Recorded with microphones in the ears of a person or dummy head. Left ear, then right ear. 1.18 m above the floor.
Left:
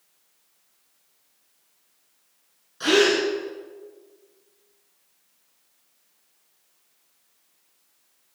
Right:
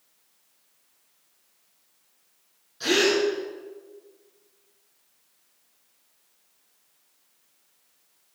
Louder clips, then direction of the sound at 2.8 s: Left 3 dB; 35° left (ahead or behind).